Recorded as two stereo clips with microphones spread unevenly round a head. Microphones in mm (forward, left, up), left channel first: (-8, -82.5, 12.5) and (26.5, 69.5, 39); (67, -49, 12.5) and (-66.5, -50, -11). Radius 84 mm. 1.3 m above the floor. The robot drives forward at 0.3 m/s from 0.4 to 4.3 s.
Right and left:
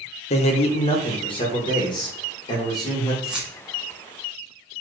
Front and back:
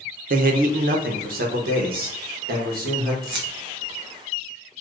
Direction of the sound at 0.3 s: 160° right.